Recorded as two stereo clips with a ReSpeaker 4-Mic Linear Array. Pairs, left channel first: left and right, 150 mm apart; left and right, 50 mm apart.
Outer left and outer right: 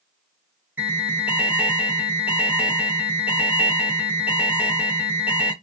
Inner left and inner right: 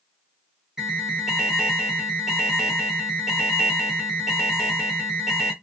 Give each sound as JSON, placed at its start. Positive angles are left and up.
{"t": 0.8, "sound": "an alarm", "side_deg": -10, "distance_m": 0.7}